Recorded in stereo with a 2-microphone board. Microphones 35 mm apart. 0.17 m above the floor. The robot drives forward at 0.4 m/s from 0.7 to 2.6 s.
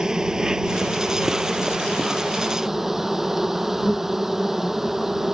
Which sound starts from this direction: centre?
An insect, at 0.0 s.